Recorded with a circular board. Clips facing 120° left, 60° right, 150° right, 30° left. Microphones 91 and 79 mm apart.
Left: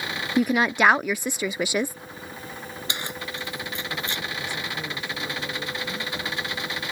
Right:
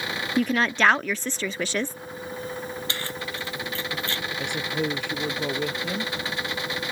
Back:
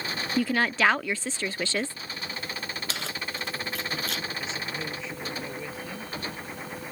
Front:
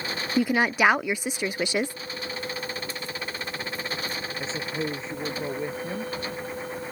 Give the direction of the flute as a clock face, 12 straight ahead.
I don't hear a flute.